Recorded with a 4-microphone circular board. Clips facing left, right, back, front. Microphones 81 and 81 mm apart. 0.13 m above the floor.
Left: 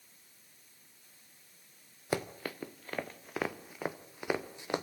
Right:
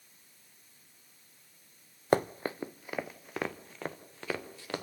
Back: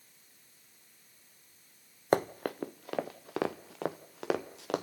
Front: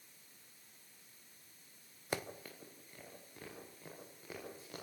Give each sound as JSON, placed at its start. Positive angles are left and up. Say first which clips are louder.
{"t": 2.1, "sound": "running footsteps", "louder": "right 8 dB, back 14 dB", "azimuth_deg": -135, "distance_m": 0.6}